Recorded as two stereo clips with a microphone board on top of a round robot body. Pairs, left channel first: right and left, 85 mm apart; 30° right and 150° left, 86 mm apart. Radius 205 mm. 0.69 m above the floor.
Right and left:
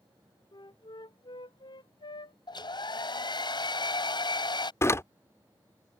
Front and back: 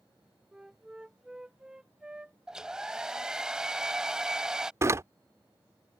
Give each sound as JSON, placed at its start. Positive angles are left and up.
{"t": 0.5, "sound": "a flute", "azimuth_deg": -130}
{"t": 2.5, "sound": "a hair dryer", "azimuth_deg": -125}
{"t": 4.8, "sound": "a door slam", "azimuth_deg": -150}